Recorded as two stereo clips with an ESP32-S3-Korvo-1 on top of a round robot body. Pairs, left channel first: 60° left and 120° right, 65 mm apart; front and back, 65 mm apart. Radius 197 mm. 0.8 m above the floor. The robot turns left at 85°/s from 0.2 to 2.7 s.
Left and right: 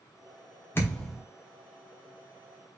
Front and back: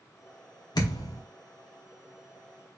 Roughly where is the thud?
Ahead.